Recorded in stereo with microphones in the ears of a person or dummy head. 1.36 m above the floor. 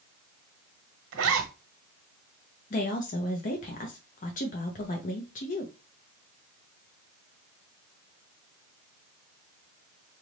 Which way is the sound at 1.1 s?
70° right (ahead or behind).